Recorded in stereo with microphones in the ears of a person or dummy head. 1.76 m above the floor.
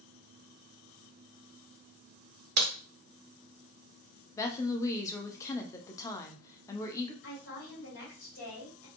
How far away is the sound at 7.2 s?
About 1.7 m.